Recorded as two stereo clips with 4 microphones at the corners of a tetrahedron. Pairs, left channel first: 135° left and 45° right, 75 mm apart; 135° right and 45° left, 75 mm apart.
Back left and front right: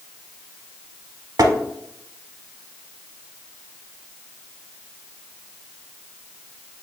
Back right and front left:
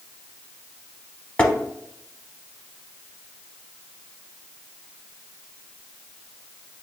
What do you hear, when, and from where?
1.4 s tapping: 70° right, 0.6 m